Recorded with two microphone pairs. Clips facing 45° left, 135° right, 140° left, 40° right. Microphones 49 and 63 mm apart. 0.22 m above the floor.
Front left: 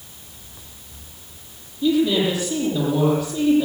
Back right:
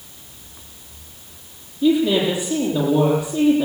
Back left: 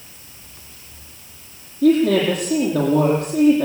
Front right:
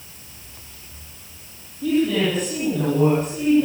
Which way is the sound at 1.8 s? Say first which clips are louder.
Back right 2 dB, back left 5 dB; 165° left.